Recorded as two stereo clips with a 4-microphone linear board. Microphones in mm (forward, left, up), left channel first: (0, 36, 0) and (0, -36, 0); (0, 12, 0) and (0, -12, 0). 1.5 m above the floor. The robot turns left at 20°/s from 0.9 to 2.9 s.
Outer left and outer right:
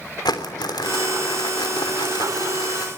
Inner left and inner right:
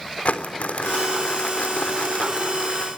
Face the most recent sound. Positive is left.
turn(degrees=65)